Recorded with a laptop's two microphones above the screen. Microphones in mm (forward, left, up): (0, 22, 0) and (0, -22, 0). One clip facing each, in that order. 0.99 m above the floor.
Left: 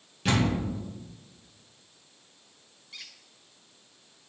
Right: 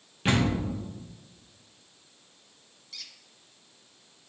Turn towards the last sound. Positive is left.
turn(degrees=25)  # may be behind; listen again after turning